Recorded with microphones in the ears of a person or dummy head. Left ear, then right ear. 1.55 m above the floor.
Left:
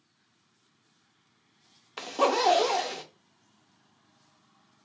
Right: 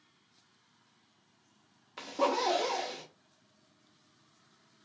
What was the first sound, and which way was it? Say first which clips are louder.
A zipper: left 5 dB; 25° left (ahead or behind).